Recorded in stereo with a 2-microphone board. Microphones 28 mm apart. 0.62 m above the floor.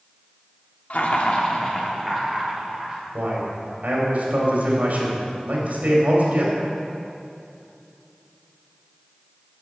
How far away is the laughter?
About 1.0 m.